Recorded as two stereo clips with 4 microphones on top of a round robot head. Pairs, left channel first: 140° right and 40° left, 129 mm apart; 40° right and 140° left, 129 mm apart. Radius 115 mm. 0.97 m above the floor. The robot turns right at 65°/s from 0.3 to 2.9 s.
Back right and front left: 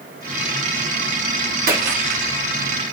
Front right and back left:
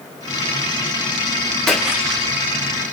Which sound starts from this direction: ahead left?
A splash, at 1.7 s.